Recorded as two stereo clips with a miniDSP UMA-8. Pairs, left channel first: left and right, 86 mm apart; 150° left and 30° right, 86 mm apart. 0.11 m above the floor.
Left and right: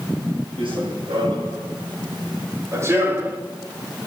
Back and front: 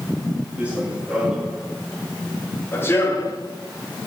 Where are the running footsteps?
105° right, 3 m; by 3.4 s 165° right, 1.8 m.